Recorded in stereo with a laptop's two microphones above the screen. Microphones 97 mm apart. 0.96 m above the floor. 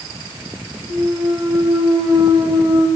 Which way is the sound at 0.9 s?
25° right (ahead or behind).